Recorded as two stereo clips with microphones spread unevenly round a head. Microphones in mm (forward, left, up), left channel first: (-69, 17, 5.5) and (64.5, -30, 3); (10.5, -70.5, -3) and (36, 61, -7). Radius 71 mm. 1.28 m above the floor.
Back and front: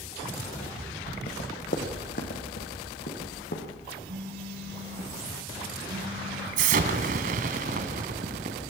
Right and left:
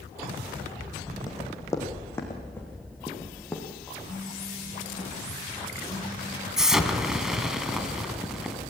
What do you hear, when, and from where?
1.3 s running footsteps: 165° right, 3 m; by 4.0 s 175° left, 4.5 m
4.1 s a phone buzzing: 45° right, 4 m
6.6 s an explosion: 10° right, 1.9 m